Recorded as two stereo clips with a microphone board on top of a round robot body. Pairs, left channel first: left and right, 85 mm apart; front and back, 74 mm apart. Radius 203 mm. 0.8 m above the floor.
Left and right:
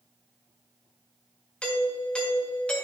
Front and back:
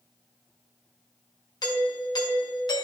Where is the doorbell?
10° left, 1.8 m.